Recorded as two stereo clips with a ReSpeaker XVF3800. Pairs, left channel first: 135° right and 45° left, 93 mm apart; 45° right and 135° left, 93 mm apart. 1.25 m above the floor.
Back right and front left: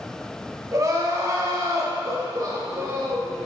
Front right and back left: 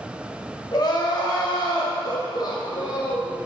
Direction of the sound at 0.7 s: 5° right.